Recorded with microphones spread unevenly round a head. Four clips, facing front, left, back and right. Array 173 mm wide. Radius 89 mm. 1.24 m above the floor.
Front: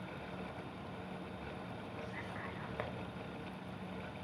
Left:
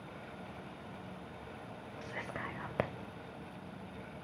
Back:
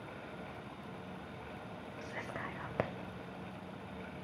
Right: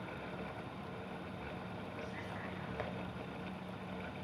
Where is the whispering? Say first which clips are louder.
Left 2 dB, back 6 dB; 125° left, 0.6 m.